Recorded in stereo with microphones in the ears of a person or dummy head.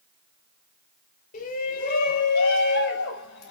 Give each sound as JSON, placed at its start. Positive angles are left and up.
{"t": 1.3, "sound": "a shout", "side_deg": 40, "distance_m": 4.0}